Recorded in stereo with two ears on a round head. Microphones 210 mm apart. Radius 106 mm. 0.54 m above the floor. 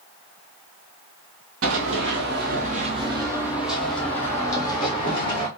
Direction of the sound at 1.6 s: 60° right (ahead or behind).